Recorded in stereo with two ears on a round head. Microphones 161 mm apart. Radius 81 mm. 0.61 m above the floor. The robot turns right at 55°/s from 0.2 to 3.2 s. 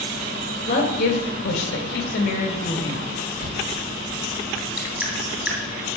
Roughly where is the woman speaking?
Ahead left.